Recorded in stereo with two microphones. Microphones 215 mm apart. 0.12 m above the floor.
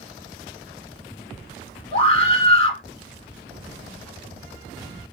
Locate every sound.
1.9 s a scream: 25° left (ahead or behind), 1.1 m